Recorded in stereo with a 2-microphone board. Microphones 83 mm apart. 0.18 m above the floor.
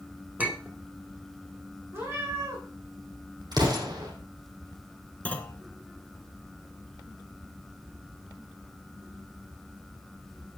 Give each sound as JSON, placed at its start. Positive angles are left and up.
{"t": 0.4, "sound": "a clink", "side_deg": -20, "distance_m": 1.5}
{"t": 1.9, "sound": "a cat meowing", "side_deg": -35, "distance_m": 6.5}
{"t": 3.5, "sound": "an explosion", "side_deg": -55, "distance_m": 3.5}
{"t": 5.2, "sound": "a clunk", "side_deg": 20, "distance_m": 1.1}